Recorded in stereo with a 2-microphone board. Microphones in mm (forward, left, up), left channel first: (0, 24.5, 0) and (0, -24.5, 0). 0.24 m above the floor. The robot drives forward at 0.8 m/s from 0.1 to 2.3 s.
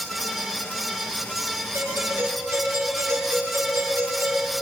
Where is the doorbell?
50° right (ahead or behind), 5.5 m.